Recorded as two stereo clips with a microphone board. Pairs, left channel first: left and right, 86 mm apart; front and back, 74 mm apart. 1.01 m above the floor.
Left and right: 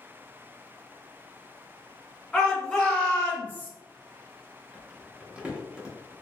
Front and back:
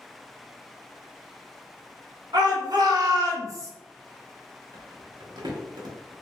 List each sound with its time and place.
2.3 s a shout: 175° left, 1.5 m; by 3.7 s 150° left, 0.8 m
4.7 s crumpling: 165° right, 0.9 m